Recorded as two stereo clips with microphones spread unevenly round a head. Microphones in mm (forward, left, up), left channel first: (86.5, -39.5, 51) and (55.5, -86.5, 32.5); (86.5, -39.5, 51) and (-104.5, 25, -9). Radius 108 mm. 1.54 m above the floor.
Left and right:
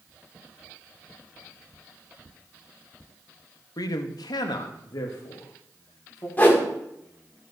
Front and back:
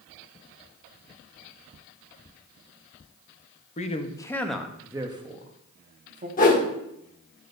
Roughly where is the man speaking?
Ahead left.